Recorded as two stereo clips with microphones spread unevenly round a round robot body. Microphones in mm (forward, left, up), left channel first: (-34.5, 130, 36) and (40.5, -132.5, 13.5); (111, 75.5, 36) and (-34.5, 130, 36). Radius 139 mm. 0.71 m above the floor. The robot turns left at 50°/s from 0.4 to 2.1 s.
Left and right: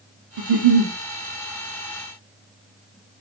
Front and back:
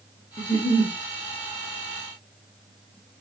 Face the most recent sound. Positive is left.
turn(degrees=-165)